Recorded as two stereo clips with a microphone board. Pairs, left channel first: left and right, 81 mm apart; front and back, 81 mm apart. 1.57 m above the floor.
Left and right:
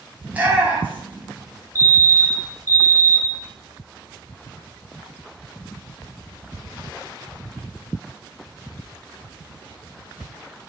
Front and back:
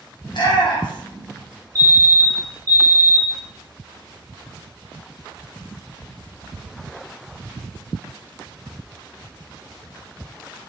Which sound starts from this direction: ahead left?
A fire alarm, at 1.8 s.